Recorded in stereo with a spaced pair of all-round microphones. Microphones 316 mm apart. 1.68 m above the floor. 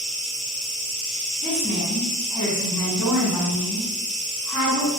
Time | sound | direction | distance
0.0 | an insect | 65° left (ahead or behind) | 2.0 m
1.4 | a woman speaking | 80° left | 2.0 m